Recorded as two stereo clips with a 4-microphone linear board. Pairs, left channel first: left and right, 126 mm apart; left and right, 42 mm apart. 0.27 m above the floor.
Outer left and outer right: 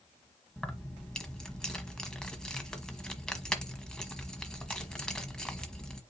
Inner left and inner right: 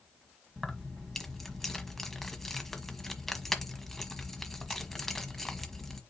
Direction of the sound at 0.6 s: 5° left (ahead or behind).